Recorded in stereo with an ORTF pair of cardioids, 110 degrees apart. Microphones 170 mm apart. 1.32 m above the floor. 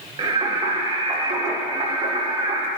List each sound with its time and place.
0.2 s singing: 25° right, 1.0 m